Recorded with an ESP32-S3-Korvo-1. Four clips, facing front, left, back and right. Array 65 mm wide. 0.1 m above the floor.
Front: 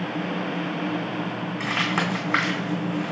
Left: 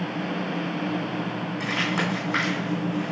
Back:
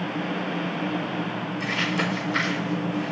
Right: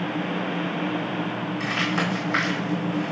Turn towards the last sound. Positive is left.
turn(degrees=-5)